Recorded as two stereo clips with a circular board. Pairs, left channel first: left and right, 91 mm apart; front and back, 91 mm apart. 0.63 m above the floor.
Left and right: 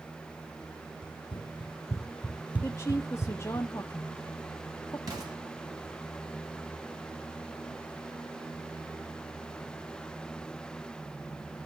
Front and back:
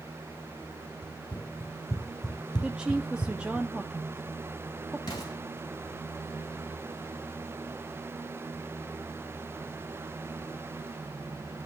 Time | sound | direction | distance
1.0 | running footsteps | 80° left | 1.8 m
2.6 | a woman speaking | 110° left | 0.8 m
5.1 | an explosion | 45° right | 3.5 m